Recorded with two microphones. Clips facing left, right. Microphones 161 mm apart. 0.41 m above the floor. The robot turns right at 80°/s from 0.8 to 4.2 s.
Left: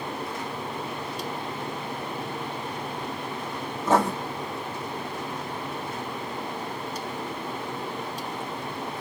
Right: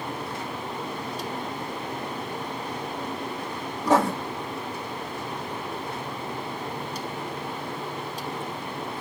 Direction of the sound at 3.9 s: 15° right (ahead or behind).